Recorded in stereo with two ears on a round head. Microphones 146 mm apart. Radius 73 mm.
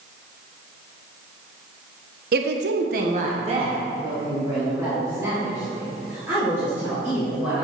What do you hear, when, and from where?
2.3 s a woman speaking: 65° right (ahead or behind), 1.0 m; by 7.7 s 15° right (ahead or behind), 7.5 m